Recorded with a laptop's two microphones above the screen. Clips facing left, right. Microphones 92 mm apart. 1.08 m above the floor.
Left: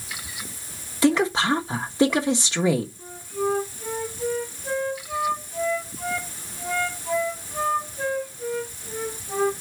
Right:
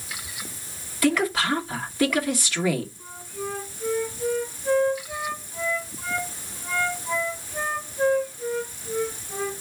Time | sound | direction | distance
1.0 | a woman speaking | 25° left (ahead or behind) | 1.1 m
3.0 | a flute | 75° left (ahead or behind) | 3 m